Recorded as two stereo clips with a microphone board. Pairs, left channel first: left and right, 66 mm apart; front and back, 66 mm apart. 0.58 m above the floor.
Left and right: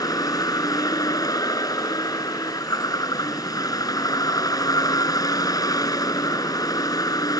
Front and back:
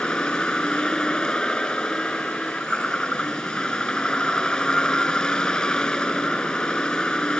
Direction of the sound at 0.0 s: 75° left.